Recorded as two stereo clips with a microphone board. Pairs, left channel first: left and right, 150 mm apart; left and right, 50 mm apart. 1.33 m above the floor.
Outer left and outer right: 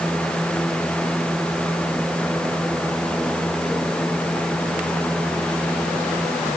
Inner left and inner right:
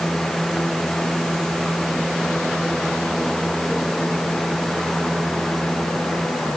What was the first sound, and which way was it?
Only background noise.